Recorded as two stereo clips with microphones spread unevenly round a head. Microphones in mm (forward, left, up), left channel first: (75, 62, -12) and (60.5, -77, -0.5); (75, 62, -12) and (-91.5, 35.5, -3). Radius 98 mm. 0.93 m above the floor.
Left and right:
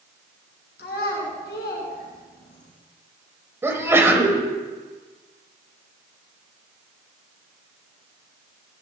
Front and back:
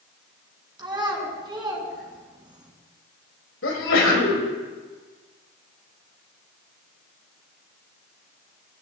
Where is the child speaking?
125° left, 5.5 m.